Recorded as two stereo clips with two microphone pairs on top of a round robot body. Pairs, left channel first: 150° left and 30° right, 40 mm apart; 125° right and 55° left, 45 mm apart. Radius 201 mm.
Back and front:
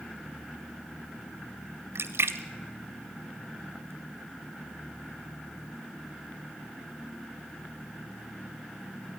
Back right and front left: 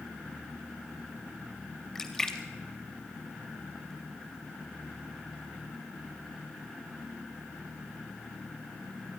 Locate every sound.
1.9 s a splash: 45° right, 0.6 m